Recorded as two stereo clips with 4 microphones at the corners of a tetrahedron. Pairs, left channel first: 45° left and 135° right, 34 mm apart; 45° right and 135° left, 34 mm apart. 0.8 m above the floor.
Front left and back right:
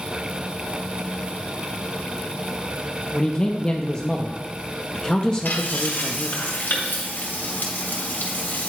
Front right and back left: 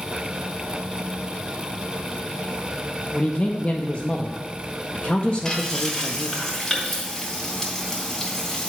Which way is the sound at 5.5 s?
30° left.